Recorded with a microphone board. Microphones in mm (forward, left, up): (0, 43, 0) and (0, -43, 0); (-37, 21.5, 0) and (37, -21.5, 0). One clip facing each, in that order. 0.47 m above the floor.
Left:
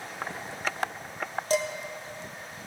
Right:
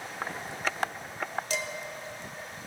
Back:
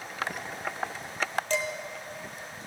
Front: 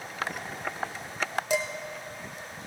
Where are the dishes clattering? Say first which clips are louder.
Left 8 dB, front 3 dB; 45° left, 0.9 m.